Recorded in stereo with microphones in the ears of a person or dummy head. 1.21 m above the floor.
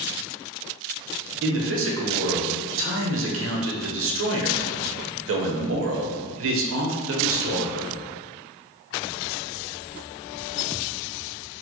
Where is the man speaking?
70° right (ahead or behind), 0.8 m.